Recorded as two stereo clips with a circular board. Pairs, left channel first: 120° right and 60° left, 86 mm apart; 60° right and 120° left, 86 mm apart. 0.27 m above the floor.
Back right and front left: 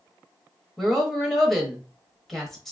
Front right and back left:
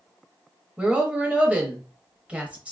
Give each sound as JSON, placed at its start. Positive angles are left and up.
{"t": 0.8, "sound": "a woman speaking", "azimuth_deg": 155, "distance_m": 1.0}